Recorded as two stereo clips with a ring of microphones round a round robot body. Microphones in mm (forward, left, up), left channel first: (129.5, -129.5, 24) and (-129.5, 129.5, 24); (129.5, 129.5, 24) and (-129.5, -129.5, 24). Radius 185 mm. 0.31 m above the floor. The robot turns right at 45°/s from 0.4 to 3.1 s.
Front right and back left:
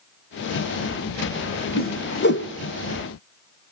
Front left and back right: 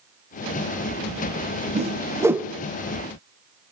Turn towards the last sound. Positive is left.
turn(degrees=-20)